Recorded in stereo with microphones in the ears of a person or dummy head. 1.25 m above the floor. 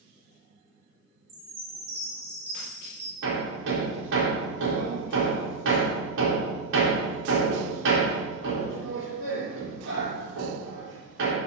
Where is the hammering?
70° right (ahead or behind), 3 m.